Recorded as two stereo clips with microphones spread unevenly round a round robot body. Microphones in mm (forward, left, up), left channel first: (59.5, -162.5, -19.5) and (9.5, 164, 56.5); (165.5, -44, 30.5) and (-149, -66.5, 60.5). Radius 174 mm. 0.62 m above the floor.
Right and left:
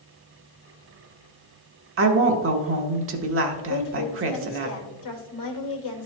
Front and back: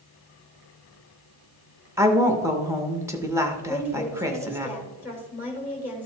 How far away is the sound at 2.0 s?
About 0.9 m.